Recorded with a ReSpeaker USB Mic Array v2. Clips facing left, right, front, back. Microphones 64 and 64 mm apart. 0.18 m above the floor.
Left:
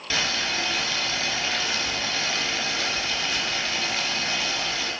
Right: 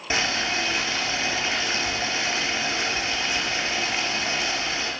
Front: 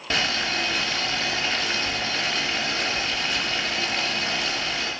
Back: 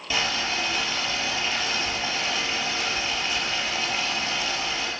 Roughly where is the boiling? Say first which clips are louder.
Right 2 dB, front 1 dB; ahead right.